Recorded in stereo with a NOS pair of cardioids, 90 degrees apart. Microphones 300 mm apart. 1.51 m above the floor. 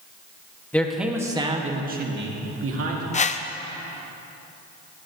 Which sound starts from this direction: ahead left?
A whoosh, at 3.1 s.